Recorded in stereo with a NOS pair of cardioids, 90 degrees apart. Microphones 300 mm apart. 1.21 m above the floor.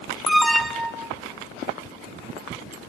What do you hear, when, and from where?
0.3 s an alarm: straight ahead, 1.2 m